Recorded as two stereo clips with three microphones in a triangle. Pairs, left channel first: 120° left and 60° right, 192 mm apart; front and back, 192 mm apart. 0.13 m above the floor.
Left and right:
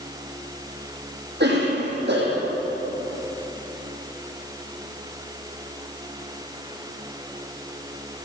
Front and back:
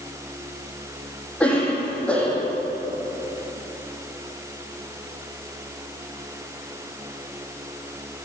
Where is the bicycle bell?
I don't hear a bicycle bell.